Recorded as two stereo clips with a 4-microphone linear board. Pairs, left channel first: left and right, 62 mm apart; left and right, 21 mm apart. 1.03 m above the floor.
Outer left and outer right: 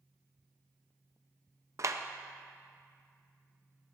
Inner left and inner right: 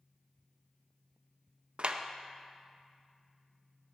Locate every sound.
1.8 s a clap: 55° right (ahead or behind), 0.6 m